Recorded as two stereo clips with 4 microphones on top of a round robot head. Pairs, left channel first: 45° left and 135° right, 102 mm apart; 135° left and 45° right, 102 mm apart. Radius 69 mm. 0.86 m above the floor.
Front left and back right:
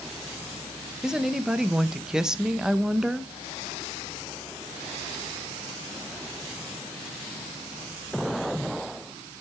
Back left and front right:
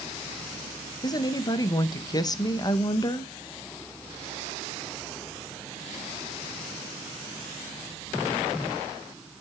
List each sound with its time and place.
1.0 s a woman speaking: 145° left, 0.9 m